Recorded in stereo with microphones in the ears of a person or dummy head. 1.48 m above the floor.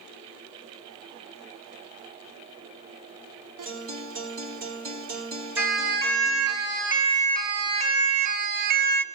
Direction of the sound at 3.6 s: 45° right (ahead or behind).